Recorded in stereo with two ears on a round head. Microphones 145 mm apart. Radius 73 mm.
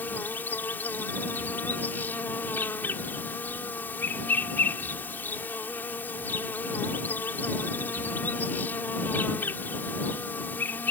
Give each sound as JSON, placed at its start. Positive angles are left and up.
{"t": 0.0, "sound": "an insect", "side_deg": 10}